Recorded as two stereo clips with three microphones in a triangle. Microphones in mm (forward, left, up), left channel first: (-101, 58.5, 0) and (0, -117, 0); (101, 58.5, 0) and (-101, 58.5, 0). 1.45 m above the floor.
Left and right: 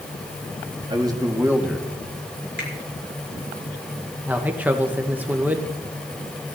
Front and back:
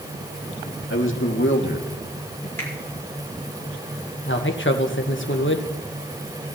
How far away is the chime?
No chime in this recording.